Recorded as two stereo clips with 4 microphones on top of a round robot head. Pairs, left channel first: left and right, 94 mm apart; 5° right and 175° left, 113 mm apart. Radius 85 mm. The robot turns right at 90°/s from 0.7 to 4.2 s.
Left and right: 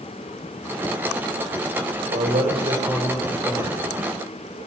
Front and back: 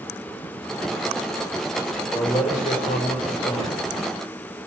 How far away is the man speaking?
About 7 m.